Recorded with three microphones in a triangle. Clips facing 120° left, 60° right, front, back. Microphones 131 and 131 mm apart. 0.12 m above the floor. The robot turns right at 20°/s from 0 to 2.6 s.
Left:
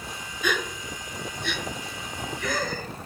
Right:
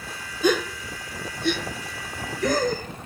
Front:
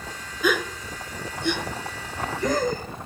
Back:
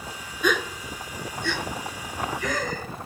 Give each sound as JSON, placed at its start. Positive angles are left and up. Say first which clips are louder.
{"t": 0.4, "sound": "a gasp", "louder": "right 7 dB, front 1 dB", "azimuth_deg": -85, "distance_m": 0.5}